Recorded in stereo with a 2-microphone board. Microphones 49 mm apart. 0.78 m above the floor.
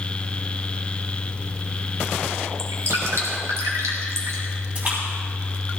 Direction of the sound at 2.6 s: 75° right (ahead or behind).